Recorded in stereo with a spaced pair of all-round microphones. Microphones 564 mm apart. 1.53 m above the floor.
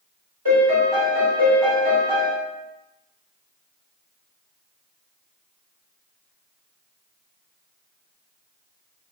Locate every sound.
0.5 s a piano: 40° right (ahead or behind), 1.3 m